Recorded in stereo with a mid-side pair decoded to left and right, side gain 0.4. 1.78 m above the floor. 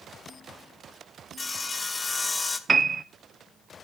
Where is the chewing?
No chewing in this recording.